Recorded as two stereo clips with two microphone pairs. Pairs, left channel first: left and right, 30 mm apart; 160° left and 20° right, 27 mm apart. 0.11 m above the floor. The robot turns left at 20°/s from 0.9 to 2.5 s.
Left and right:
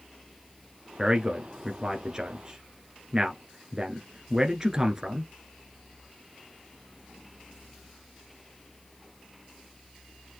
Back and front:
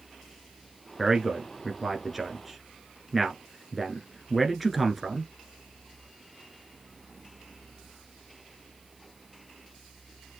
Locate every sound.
1.0 s a man speaking: 75° right, 1.2 m; by 5.3 s 105° right, 1.2 m